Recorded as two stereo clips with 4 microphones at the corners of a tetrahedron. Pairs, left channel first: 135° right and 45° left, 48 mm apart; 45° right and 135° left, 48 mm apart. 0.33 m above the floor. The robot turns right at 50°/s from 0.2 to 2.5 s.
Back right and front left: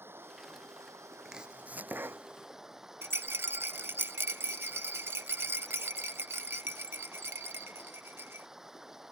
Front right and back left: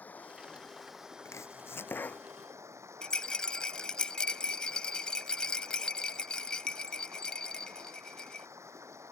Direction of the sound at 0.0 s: 10° left.